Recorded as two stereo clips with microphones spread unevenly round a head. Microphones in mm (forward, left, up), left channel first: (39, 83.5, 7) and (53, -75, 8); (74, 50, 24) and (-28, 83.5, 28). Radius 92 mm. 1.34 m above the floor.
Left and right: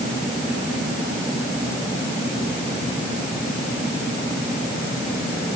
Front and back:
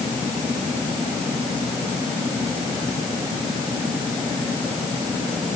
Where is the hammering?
No hammering in this recording.